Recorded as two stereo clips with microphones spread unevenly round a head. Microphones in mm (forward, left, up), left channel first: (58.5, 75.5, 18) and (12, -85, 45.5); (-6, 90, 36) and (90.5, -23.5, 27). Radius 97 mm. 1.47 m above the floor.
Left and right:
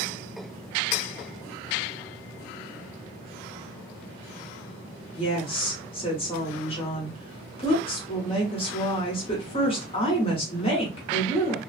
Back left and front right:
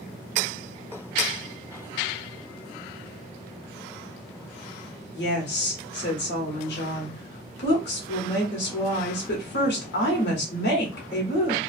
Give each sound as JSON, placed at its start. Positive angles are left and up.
{"t": 5.1, "sound": "a woman speaking", "azimuth_deg": 135, "distance_m": 1.0}